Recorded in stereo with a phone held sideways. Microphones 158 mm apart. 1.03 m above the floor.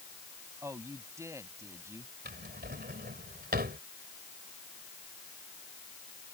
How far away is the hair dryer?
No hair dryer in this recording.